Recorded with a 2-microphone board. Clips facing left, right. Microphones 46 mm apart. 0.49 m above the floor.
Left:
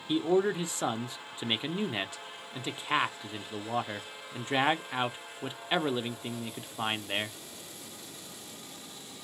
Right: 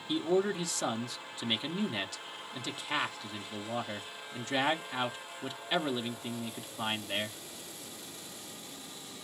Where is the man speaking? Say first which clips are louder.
Left 3 dB; 20° left (ahead or behind), 0.7 m.